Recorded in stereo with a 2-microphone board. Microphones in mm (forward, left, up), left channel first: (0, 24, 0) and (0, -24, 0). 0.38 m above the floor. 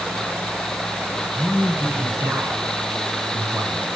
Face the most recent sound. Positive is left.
turn(degrees=-70)  # may be behind; listen again after turning